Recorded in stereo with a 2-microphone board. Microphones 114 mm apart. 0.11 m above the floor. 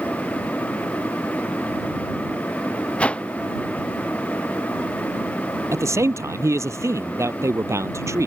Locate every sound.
3.0 s a whoosh: 10° left (ahead or behind)
5.7 s a man speaking: 25° right (ahead or behind)